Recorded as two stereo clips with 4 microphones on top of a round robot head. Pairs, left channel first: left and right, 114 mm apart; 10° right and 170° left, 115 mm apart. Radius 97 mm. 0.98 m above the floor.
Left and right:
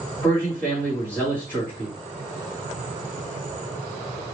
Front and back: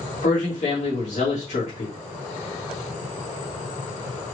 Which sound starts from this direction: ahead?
A man speaking, at 0.2 s.